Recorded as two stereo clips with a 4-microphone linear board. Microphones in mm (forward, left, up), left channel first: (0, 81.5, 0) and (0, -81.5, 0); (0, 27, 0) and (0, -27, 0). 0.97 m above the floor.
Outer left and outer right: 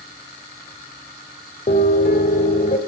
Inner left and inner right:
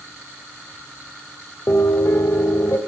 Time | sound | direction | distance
1.7 | a piano | 55° left (ahead or behind) | 1.3 m